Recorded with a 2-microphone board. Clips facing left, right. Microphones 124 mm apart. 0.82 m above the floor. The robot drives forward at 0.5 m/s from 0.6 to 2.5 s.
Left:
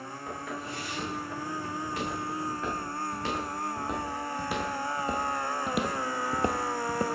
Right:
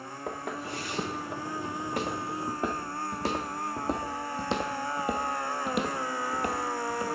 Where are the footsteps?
55° right (ahead or behind), 4 m; by 7.1 s 45° left (ahead or behind), 1.1 m.